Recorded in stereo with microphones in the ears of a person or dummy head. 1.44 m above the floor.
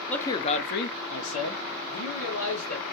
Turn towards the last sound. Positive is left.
turn(degrees=65)  # may be behind; listen again after turning